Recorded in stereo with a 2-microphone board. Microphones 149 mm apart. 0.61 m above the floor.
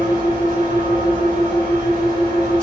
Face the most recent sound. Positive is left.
turn(degrees=-65)  # may be behind; listen again after turning